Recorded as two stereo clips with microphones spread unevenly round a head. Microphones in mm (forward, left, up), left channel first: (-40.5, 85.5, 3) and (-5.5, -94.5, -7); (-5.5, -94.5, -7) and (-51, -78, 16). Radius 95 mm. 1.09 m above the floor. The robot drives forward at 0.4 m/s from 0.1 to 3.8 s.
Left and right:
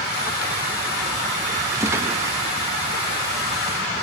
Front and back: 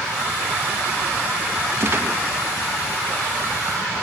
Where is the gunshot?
155° right, 1.2 m.